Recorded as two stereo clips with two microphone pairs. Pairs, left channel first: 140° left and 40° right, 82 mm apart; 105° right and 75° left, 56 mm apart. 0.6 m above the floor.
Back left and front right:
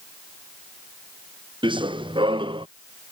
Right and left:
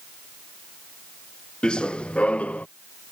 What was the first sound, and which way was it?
Running footsteps, 30° right.